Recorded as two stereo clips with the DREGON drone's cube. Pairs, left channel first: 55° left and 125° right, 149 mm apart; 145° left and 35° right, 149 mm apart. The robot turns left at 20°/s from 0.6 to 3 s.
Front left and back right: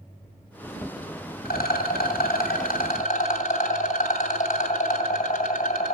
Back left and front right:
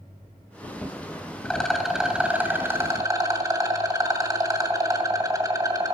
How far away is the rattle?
About 2 m.